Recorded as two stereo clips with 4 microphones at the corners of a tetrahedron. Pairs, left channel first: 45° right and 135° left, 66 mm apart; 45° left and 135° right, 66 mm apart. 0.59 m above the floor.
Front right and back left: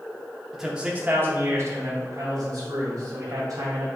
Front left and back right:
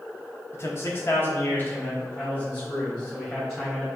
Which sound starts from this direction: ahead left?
A man speaking, at 0.5 s.